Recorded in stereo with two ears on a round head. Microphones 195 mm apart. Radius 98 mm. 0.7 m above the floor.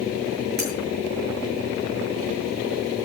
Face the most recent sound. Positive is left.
turn(degrees=-50)  # may be behind; listen again after turning